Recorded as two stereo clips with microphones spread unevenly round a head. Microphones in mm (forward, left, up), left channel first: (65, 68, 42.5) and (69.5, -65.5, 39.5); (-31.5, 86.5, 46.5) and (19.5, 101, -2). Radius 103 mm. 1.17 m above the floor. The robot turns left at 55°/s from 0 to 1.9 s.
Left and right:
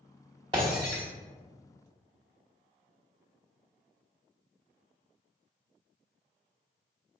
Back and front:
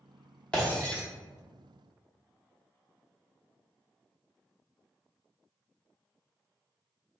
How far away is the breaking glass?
About 1.0 m.